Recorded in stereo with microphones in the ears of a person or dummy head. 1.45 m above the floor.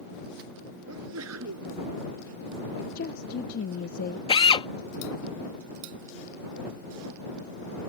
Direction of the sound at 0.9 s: 85° right.